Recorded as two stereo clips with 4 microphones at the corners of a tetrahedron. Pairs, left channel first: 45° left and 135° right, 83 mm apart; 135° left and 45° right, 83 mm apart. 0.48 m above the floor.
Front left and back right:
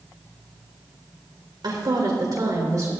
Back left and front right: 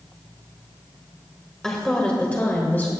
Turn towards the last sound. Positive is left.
turn(degrees=-170)